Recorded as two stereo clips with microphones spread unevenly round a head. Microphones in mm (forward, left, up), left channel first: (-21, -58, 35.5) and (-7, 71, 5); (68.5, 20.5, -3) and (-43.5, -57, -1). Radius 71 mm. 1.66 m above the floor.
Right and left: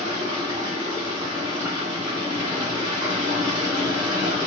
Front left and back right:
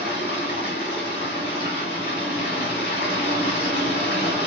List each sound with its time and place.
0.0 s running water: 20° left, 1.4 m